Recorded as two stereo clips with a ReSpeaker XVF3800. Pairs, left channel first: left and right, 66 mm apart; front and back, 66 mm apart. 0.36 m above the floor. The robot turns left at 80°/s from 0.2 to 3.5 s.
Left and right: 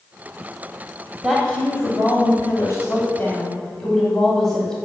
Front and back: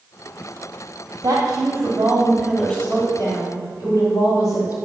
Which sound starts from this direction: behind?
A woman speaking, at 1.2 s.